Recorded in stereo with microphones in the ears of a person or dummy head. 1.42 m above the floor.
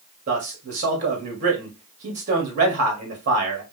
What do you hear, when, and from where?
0.3 s a man speaking: 40° right (ahead or behind), 1.9 m